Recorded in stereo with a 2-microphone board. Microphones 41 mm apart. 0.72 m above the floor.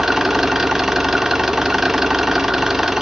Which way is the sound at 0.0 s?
10° right (ahead or behind).